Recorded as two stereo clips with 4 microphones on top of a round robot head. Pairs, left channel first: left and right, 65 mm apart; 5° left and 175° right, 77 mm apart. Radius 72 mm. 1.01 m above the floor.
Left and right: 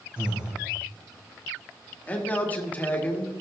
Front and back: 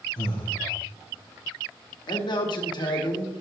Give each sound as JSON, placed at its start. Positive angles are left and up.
{"t": 0.2, "sound": "breathing", "azimuth_deg": -20, "distance_m": 1.9}
{"t": 2.1, "sound": "a man speaking", "azimuth_deg": 25, "distance_m": 1.8}